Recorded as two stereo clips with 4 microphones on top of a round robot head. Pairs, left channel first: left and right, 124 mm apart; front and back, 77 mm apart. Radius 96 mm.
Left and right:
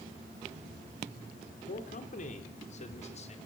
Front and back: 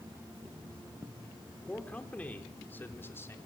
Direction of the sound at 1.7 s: 75° left.